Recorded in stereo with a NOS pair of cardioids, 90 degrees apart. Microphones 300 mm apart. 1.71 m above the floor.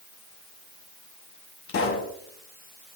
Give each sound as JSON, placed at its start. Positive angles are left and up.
{"t": 1.7, "sound": "a pop", "azimuth_deg": 45, "distance_m": 1.8}